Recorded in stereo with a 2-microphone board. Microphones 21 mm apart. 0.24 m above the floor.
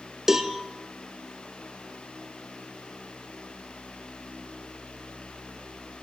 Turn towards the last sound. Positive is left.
turn(degrees=-20)  # may be behind; listen again after turning